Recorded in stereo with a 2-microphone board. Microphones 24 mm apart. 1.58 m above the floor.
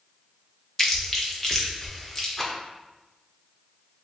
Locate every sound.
0.8 s chewing: 15° left (ahead or behind), 0.9 m
2.4 s a rattle: 5° left (ahead or behind), 0.7 m